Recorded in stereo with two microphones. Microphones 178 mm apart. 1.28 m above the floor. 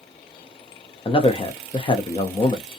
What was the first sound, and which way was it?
A man speaking, 30° left (ahead or behind).